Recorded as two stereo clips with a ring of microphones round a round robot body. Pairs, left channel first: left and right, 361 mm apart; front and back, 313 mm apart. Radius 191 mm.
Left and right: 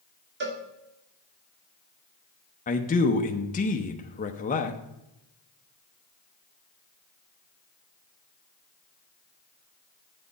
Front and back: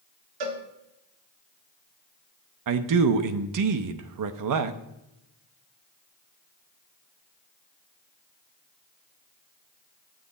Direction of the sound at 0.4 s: 155° right.